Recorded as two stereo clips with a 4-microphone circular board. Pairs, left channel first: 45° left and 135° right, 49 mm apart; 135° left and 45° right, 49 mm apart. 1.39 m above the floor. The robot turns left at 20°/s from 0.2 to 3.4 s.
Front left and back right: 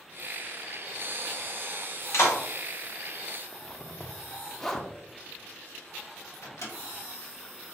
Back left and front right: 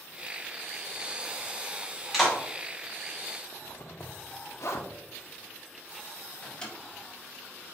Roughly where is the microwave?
Ahead left.